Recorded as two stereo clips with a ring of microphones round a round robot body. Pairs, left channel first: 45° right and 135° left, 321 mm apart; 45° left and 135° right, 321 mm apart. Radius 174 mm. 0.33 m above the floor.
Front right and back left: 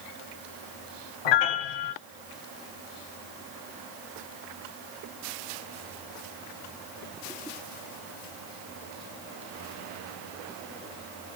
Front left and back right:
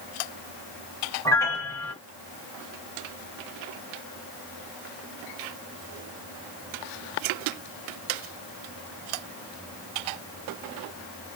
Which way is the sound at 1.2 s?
35° right.